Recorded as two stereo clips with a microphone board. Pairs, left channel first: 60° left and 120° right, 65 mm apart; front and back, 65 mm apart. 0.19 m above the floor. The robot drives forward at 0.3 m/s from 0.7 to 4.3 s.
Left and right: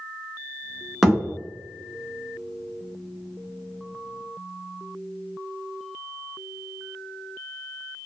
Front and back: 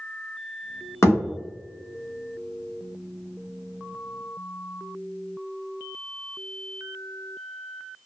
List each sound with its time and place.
1.0 s a thud: 30° right, 1.2 m; by 1.2 s 35° right, 1.1 m